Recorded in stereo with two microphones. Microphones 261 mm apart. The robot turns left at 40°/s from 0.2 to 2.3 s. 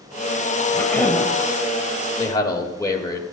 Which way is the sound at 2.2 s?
15° left (ahead or behind).